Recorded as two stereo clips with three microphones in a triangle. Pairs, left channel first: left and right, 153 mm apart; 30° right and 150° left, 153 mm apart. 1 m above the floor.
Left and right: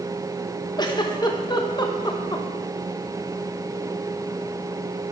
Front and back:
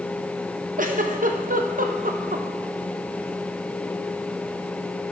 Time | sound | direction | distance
0.8 | a giggle | 145° left | 0.8 m